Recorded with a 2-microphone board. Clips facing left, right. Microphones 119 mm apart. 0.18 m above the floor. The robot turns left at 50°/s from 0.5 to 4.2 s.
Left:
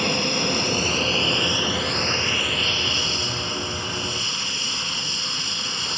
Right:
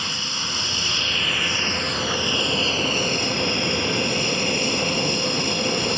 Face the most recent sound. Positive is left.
turn(degrees=-60)  # may be behind; listen again after turning